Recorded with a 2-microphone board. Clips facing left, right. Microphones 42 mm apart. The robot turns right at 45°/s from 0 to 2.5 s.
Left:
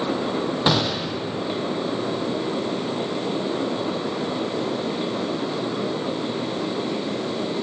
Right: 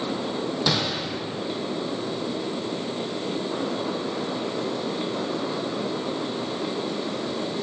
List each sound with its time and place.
0.7 s a gunshot: 35° left (ahead or behind), 1.1 m; by 1.2 s 5° left (ahead or behind), 1.1 m